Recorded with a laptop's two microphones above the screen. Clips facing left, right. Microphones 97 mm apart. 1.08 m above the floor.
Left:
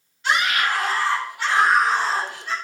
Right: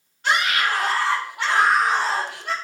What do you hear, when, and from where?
0.2 s a scream: 50° right (ahead or behind), 6.5 m; by 2.5 s 60° right (ahead or behind), 6.5 m